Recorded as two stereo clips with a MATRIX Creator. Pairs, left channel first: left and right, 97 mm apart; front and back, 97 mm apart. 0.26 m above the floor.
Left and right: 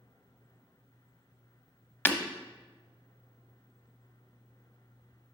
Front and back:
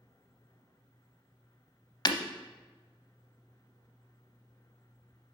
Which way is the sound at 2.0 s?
25° left.